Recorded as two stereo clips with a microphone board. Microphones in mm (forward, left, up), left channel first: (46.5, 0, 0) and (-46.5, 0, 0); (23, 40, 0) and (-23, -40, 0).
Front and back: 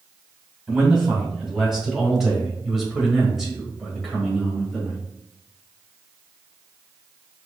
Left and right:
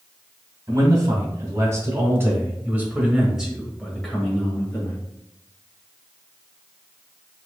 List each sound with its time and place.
0.7 s a man speaking: 95° right, 2 m; by 5.0 s 95° left, 1.6 m